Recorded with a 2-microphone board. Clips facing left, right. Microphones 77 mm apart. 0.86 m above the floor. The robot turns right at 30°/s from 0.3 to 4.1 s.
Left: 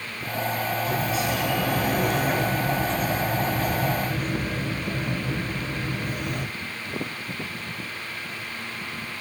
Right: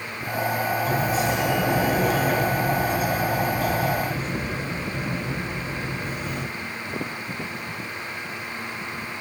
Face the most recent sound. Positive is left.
turn(degrees=55)